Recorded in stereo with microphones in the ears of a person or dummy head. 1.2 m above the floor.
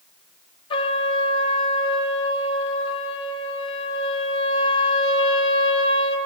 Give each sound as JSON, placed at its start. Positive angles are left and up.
{"t": 0.7, "sound": "a trumpet", "side_deg": 30, "distance_m": 0.6}